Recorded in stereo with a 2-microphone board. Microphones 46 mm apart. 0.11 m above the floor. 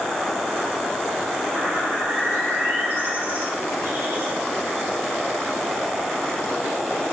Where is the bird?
50° right (ahead or behind), 4 m.